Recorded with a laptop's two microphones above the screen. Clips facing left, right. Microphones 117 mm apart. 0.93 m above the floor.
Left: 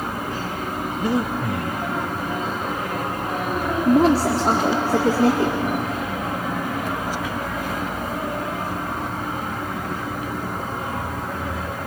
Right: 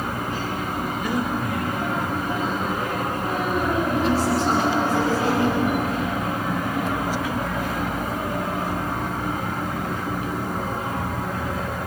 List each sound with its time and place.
1.0 s breathing: 30° left (ahead or behind), 0.8 m
3.9 s a woman speaking: 75° left (ahead or behind), 1.8 m